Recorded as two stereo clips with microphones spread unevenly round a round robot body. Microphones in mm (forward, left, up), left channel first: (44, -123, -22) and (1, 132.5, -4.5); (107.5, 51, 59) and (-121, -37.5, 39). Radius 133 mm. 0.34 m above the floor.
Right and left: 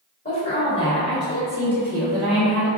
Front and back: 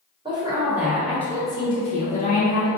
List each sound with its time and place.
0.2 s a woman speaking: 110° right, 1.2 m; by 2.7 s 20° left, 1.2 m